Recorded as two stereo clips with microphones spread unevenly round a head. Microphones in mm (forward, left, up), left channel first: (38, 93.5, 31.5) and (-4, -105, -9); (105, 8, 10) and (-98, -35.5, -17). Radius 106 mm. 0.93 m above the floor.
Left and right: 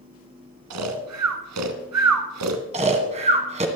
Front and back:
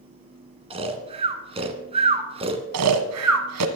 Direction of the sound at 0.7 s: 100° right.